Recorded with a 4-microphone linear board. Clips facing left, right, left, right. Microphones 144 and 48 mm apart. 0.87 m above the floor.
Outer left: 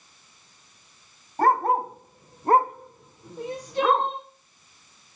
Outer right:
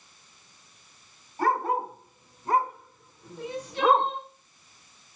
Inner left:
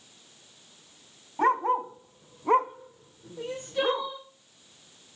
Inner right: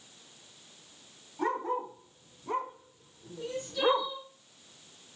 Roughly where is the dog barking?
Left.